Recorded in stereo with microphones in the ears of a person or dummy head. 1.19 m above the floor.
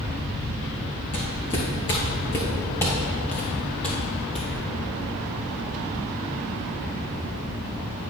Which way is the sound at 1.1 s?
30° left (ahead or behind).